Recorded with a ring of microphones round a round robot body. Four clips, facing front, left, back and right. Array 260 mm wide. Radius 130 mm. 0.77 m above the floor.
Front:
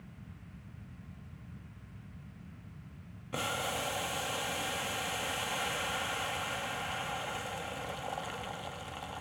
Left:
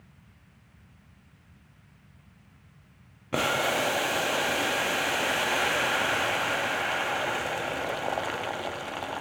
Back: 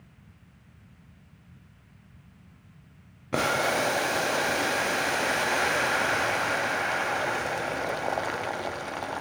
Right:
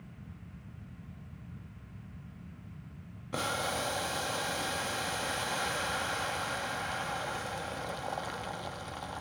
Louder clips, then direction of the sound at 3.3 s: Left 7 dB, back 11 dB; 145° left.